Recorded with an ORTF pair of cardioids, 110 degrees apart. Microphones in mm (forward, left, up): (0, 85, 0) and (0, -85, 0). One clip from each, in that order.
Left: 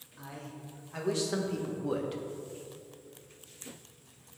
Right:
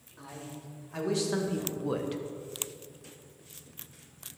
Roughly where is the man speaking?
Ahead.